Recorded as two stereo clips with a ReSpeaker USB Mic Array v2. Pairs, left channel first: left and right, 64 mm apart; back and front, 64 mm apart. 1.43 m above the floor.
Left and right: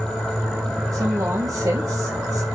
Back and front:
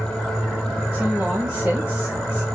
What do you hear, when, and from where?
0.9 s a woman speaking: 75° right, 1.2 m